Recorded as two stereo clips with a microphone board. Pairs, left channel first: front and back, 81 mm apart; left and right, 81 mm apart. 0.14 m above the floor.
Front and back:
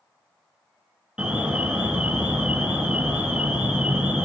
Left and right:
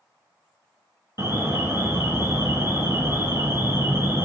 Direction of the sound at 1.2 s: 110° right.